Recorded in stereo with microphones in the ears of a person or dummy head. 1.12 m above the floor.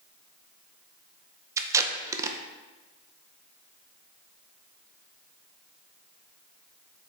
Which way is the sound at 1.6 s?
20° right (ahead or behind).